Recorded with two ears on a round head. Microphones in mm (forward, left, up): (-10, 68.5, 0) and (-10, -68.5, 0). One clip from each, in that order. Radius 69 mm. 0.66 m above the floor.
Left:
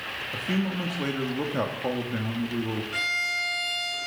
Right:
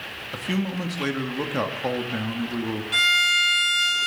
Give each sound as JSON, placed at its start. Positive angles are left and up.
{"t": 0.3, "sound": "a man speaking", "side_deg": -30, "distance_m": 1.3}
{"t": 2.9, "sound": "a violin", "side_deg": -70, "distance_m": 2.0}